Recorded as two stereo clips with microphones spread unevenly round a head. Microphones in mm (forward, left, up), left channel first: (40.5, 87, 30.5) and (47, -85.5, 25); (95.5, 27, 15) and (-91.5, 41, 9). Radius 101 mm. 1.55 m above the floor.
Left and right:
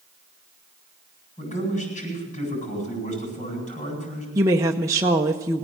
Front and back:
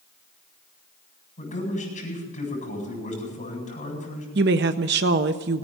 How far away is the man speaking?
About 9 m.